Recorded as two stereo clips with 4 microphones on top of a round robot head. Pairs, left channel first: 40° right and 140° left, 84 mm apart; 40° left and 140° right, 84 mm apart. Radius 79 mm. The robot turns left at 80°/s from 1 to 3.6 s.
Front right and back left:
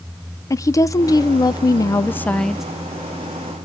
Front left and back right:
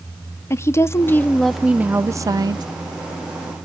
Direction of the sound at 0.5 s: 5° right.